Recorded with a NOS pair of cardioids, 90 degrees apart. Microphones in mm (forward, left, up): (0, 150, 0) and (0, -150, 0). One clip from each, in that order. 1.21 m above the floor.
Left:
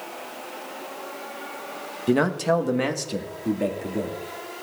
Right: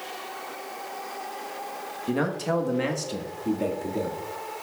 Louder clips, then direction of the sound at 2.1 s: Left 6 dB; 30° left.